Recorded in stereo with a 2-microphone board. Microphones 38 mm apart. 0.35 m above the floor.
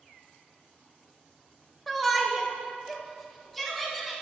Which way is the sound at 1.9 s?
5° left (ahead or behind).